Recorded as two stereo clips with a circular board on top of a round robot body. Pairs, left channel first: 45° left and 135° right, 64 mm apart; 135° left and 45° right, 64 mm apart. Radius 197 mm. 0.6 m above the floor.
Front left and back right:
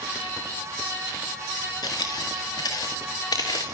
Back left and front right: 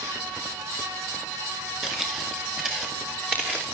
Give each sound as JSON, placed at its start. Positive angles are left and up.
{"t": 1.8, "sound": "footsteps", "azimuth_deg": 35, "distance_m": 5.0}